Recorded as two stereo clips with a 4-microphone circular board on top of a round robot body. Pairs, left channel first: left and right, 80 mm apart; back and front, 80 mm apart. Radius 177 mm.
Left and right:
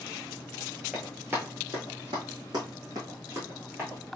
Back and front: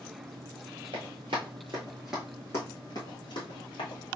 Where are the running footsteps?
15° right, 1.0 m; by 4.0 s 155° right, 1.4 m.